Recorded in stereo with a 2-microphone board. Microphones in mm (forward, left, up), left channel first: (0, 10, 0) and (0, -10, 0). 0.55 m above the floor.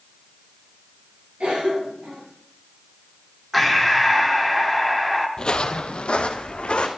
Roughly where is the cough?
Right.